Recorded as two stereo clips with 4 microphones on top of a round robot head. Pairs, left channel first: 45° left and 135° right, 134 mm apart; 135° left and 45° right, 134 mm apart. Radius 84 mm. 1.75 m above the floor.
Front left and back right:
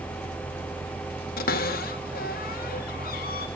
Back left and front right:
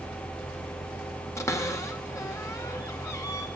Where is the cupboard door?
65° left, 2 m.